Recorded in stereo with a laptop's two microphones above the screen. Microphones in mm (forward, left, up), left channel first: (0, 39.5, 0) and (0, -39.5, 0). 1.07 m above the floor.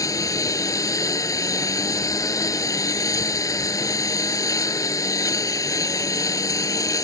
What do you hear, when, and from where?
0.0 s a lawn mower: 50° left (ahead or behind)